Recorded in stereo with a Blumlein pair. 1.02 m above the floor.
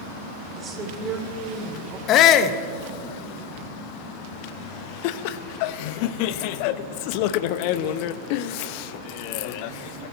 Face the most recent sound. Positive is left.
turn(degrees=45)